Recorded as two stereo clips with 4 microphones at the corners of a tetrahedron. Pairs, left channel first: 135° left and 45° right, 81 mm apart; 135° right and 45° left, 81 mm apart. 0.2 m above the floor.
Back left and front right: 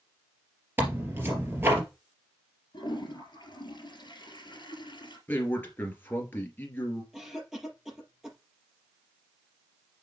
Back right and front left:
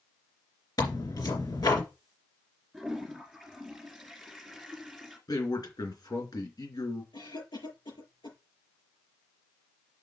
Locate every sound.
0.8 s tearing paper: 105° right, 3 m
2.7 s a toilet flushing: 130° left, 3 m
5.3 s a man speaking: 160° right, 3 m
7.1 s a cough: 130° right, 4.5 m